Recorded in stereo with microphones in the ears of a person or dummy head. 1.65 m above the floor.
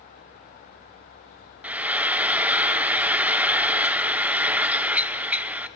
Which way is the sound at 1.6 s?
5° right (ahead or behind).